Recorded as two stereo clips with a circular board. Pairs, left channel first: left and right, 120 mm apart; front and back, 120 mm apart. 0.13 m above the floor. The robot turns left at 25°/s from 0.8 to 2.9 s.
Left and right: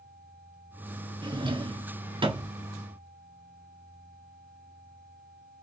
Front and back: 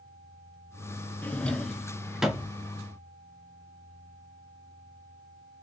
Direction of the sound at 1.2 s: 70° right.